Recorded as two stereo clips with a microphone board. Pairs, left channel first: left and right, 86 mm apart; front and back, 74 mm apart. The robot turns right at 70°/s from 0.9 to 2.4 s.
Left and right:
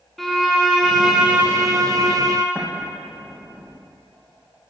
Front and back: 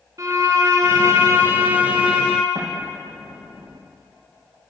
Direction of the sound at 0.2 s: 175° left.